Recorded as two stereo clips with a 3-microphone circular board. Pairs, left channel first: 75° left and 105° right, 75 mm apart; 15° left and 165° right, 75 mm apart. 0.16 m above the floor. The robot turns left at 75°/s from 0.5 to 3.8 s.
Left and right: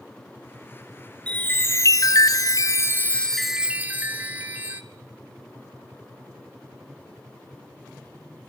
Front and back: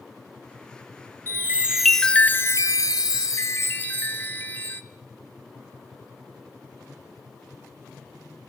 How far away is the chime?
About 0.9 m.